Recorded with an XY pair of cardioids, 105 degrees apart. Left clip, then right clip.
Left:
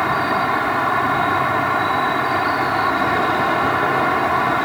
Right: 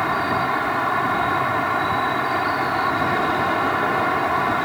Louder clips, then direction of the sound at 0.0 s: Left 3 dB; 15° left.